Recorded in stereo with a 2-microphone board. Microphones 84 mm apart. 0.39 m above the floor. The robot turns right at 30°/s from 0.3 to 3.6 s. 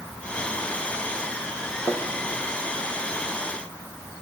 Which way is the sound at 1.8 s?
60° left (ahead or behind).